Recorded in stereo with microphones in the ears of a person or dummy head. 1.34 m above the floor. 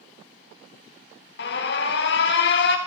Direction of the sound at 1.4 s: 60° left (ahead or behind).